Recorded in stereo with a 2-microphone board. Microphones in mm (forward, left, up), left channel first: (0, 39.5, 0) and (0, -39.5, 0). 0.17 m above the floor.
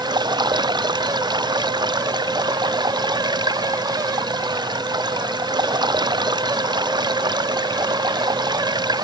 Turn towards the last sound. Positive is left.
turn(degrees=-65)  # may be behind; listen again after turning